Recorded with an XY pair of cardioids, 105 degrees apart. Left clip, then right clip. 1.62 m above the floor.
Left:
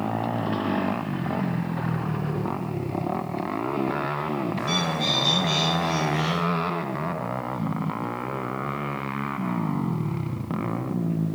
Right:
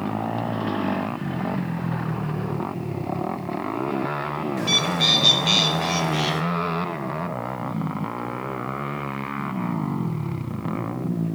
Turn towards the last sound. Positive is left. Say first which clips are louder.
# right 7 dB
turn(degrees=-55)